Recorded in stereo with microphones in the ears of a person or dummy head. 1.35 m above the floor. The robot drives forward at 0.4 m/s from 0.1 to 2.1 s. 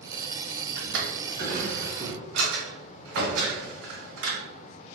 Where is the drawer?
65° right (ahead or behind), 1.4 m; by 4.4 s 55° right (ahead or behind), 1.6 m.